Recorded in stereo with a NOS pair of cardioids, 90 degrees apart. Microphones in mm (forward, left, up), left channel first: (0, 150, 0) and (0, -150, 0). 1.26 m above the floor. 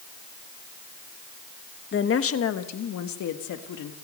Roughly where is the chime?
I don't hear a chime.